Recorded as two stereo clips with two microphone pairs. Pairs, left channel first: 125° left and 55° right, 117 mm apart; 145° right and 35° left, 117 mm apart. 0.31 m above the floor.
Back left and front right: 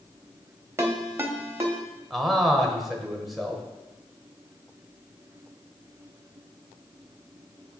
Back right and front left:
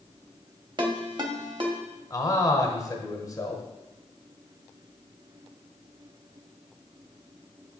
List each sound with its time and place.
0.8 s a ringtone: 5° left, 0.8 m
2.1 s a man speaking: 145° right, 1.1 m